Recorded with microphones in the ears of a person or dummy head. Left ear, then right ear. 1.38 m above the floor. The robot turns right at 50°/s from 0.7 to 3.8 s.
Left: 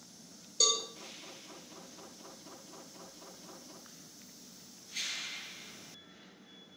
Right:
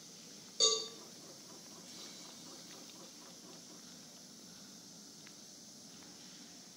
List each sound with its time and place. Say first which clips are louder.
0.6 s a cowbell: left 3 dB; 15° left (ahead or behind), 0.5 m; by 0.8 s 10° left (ahead or behind), 0.5 m